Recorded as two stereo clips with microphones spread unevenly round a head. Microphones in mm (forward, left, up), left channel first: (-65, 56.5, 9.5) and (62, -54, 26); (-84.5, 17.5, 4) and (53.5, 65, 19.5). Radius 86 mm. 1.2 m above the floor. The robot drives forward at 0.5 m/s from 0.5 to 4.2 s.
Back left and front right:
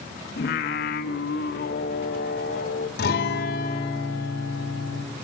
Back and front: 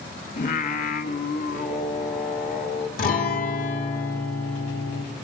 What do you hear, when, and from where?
0.4 s singing: 170° left, 1.4 m; by 2.9 s 175° left, 2.5 m
3.0 s a guitar: 175° left, 2 m